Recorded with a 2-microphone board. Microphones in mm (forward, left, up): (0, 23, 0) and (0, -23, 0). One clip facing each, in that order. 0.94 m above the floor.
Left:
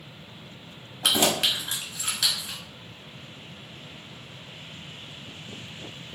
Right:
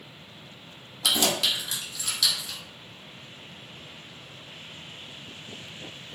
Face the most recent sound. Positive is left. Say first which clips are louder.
# left 2 dB
turn(degrees=30)  # may be behind; listen again after turning